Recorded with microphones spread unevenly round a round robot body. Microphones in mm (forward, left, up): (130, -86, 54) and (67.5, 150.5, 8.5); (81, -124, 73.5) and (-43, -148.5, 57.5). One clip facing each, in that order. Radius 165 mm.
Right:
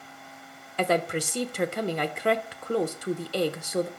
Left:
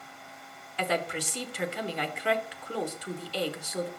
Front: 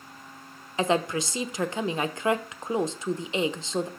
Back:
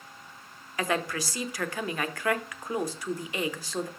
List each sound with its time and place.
0.8 s a woman speaking: 55° right, 1.1 m